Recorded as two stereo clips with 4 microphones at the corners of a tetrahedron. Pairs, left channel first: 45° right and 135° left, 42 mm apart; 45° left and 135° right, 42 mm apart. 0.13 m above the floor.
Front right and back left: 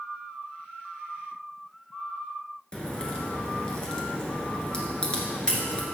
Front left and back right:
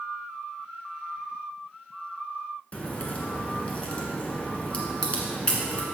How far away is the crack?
About 1.8 m.